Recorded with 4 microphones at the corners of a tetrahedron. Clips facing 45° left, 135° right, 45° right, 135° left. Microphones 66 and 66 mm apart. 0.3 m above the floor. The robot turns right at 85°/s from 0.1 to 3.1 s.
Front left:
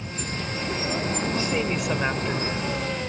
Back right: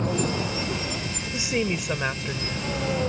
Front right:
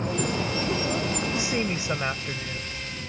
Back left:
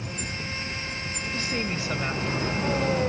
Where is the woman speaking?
95° right; by 2.6 s 15° left.